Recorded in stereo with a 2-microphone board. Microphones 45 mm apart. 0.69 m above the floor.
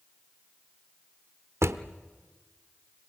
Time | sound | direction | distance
1.6 | a drawer | 80° right | 0.9 m